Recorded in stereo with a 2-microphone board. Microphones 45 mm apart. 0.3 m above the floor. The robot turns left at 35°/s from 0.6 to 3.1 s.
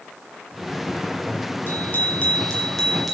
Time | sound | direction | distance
1.7 | a bicycle bell | 50° left | 4.5 m